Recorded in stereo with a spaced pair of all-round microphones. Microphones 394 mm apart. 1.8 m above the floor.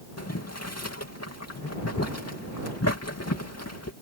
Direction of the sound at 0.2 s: 40° left (ahead or behind).